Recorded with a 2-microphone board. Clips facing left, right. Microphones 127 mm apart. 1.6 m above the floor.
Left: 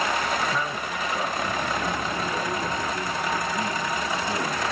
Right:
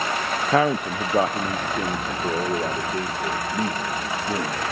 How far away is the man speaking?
About 0.5 m.